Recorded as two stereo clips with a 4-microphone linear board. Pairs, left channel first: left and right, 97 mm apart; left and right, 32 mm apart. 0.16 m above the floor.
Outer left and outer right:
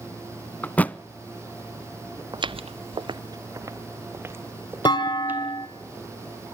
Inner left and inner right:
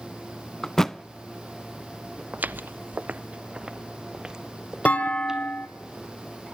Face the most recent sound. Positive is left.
turn(degrees=50)  # may be behind; listen again after turning